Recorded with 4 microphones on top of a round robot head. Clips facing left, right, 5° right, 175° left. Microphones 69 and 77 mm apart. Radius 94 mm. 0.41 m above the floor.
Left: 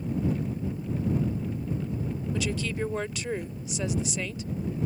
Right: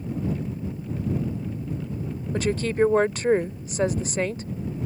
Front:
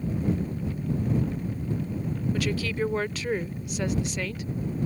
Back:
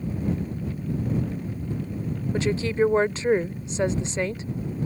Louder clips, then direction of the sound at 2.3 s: Right 10 dB, back 8 dB; 125° right.